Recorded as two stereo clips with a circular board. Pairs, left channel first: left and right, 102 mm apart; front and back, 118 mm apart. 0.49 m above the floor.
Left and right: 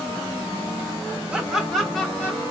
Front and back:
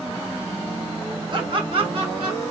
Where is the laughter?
165° right, 1.0 m; by 2.4 s 160° left, 1.3 m.